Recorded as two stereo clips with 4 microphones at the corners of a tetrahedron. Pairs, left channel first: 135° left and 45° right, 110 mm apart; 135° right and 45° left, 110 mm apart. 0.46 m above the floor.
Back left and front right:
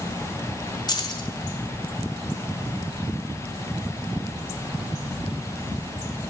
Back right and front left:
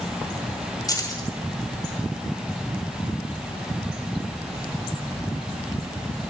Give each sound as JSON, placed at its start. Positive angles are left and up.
{"t": 0.9, "sound": "keys jangling", "azimuth_deg": 175, "distance_m": 1.2}